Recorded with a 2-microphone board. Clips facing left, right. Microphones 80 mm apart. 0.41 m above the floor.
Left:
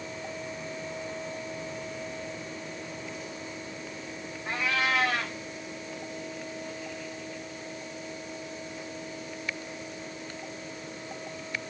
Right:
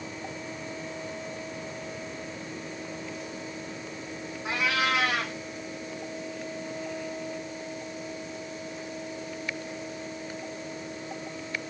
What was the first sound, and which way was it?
A cat meowing, 70° right (ahead or behind).